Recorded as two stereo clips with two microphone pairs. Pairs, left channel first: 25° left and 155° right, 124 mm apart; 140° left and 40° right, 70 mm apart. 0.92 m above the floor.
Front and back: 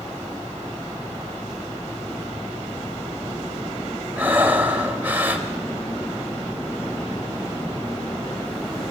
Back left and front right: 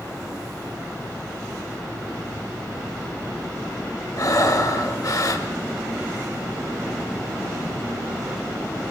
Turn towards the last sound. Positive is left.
turn(degrees=130)